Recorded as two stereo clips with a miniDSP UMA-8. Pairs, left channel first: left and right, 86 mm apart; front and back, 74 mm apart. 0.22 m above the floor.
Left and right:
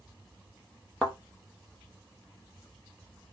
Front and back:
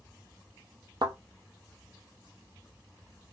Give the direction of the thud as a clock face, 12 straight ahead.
6 o'clock.